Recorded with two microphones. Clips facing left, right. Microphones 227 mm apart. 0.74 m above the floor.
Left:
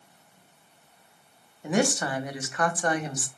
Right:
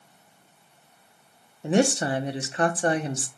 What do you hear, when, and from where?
1.6 s a woman speaking: 30° right (ahead or behind), 0.5 m